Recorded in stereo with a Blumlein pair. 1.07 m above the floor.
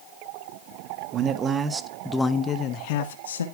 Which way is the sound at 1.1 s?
30° right.